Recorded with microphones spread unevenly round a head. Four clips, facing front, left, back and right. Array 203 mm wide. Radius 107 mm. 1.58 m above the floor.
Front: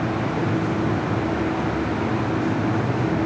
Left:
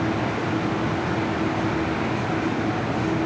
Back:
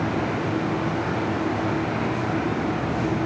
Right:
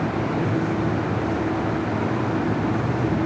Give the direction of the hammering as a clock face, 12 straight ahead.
No hammering in this recording.